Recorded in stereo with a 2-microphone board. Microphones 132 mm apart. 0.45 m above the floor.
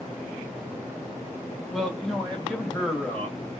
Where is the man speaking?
Centre (ahead or behind), 1.2 m; by 3.6 s 10° left (ahead or behind), 2.5 m.